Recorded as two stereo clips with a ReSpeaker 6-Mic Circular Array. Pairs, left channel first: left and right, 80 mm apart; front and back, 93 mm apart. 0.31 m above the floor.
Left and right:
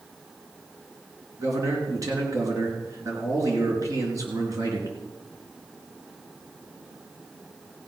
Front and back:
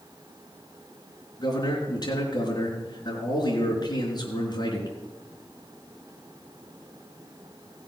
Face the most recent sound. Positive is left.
turn(degrees=-45)